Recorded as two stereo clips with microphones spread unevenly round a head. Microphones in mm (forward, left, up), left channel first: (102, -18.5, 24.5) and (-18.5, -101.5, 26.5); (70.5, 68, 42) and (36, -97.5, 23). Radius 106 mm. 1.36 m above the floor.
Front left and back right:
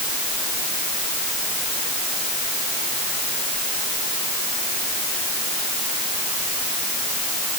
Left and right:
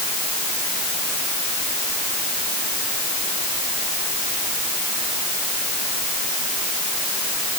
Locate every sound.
Only background noise.